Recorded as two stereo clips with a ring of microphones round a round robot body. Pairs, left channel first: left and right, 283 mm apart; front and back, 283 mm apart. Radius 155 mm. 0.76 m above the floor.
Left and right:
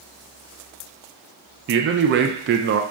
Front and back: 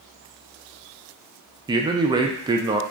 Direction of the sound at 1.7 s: 110° right.